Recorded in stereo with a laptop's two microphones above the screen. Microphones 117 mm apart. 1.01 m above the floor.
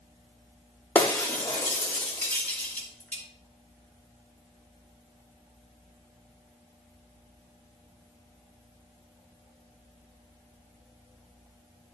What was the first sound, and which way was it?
Breaking glass, 10° left (ahead or behind).